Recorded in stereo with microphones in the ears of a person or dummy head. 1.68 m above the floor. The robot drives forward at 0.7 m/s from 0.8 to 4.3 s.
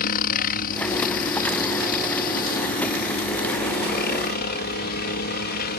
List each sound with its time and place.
0.0 s a helicopter: 50° left (ahead or behind); by 5.8 s 55° left (ahead or behind)